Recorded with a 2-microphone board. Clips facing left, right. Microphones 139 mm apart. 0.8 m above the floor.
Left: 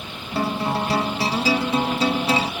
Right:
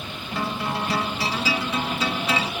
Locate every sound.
0.3 s a guitar: 35° left (ahead or behind), 0.5 m